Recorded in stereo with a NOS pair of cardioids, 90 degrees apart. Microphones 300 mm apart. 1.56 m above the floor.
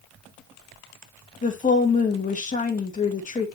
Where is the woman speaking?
25° left, 2.0 m.